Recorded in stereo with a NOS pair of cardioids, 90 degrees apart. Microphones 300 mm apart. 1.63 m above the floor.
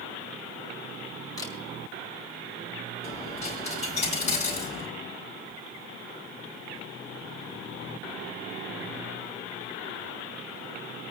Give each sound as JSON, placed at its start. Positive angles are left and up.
{"t": 1.4, "sound": "a camera shutter", "azimuth_deg": 10, "distance_m": 5.0}
{"t": 3.0, "sound": "a dropped coin", "azimuth_deg": 25, "distance_m": 4.5}